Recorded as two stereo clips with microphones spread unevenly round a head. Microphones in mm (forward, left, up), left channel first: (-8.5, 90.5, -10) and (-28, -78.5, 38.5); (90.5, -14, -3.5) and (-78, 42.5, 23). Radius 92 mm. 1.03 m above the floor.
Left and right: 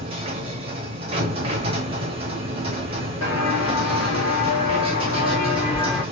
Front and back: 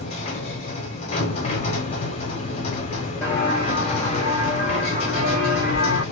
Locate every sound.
0.0 s a machine running: 75° right, 1.0 m
3.2 s footsteps: 65° left, 2.0 m; by 6.0 s 5° left, 2.0 m